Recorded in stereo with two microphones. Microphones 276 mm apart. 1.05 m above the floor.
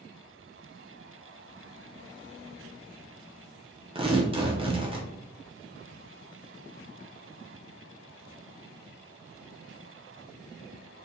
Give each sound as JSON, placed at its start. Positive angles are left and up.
{"t": 4.0, "sound": "tearing paper", "side_deg": -20, "distance_m": 0.7}